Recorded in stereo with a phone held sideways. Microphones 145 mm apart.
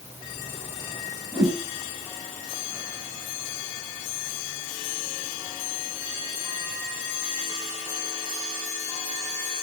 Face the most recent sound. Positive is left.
turn(degrees=-50)  # may be behind; listen again after turning